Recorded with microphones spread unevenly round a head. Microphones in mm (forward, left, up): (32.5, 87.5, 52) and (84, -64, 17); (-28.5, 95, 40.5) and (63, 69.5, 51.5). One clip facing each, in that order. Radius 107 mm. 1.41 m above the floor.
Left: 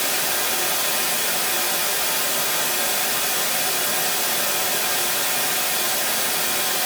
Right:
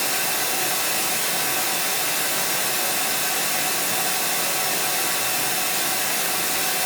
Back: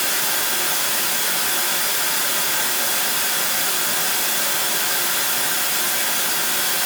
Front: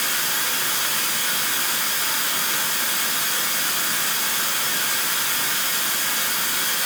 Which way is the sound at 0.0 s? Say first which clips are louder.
Left 1 dB, back 2 dB; 175° left.